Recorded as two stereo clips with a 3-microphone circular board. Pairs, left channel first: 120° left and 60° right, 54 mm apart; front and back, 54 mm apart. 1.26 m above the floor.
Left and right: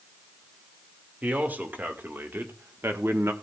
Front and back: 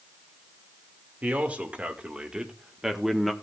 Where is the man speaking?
120° right, 2.5 m; by 3.3 s 90° right, 1.5 m.